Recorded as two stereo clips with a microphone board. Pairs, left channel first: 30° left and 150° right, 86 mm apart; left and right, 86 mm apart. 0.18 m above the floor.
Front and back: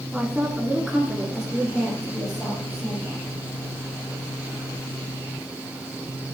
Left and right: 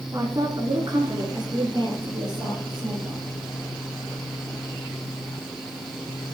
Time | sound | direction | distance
0.1 | a woman speaking | 70° right | 1.9 m